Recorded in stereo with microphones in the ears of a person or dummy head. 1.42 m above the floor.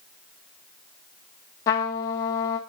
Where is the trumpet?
15° left (ahead or behind), 0.9 m.